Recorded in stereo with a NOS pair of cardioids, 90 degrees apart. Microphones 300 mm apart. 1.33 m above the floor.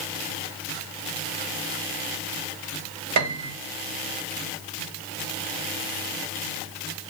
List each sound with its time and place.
3.2 s a piano: 65° right, 2.0 m